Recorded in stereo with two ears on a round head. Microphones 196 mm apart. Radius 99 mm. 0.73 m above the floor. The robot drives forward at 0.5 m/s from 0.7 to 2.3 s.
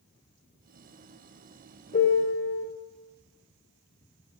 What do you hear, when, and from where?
1.9 s a piano: 40° left (ahead or behind), 2 m; by 2.6 s 35° left (ahead or behind), 2 m